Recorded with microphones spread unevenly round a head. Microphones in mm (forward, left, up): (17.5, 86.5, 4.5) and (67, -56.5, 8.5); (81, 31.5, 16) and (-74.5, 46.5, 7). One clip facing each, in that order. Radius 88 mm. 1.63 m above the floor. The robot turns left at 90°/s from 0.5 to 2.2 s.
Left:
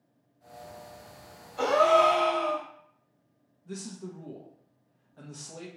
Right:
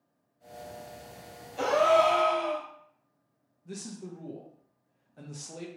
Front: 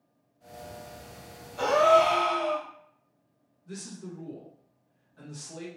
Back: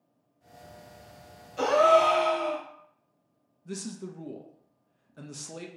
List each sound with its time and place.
1.6 s a gasp: 140° right, 1.0 m; by 2.6 s 165° left, 1.0 m
3.6 s a man speaking: 150° right, 0.5 m